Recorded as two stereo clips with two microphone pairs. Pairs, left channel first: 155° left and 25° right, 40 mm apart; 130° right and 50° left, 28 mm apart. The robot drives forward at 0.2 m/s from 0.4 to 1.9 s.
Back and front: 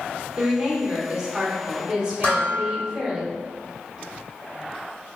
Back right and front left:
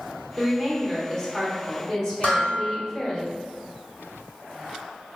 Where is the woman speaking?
60° right, 1.2 m; by 3.2 s 85° right, 1.2 m.